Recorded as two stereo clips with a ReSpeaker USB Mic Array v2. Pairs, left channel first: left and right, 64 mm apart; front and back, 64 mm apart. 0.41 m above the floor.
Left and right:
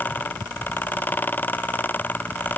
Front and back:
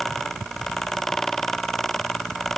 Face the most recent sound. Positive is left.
No sound to turn to.